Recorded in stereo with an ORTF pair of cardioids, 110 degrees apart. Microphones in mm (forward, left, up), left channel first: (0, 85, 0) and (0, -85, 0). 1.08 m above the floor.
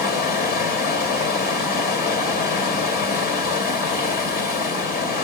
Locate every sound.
0.0 s running water: 70° left, 1.9 m